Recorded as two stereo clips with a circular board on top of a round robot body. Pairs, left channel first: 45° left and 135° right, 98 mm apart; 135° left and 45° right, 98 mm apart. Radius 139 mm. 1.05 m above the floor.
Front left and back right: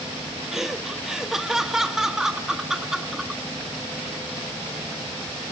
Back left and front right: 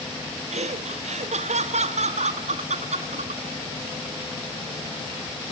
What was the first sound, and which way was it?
Laughter, 50° right.